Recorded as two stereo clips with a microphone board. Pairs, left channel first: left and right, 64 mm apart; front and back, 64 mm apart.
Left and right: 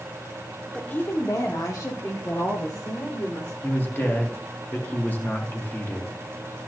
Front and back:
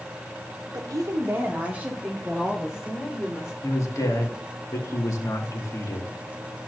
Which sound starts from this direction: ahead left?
A man speaking, at 3.6 s.